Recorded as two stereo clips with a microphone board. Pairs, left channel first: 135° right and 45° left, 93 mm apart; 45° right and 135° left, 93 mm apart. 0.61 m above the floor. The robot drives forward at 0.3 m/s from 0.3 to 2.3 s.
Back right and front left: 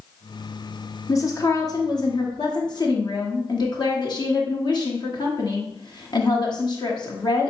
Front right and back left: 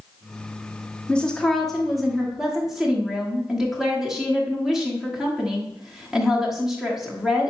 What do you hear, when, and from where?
1.1 s a woman speaking: 115° right, 0.8 m; by 7.5 s 140° right, 1.0 m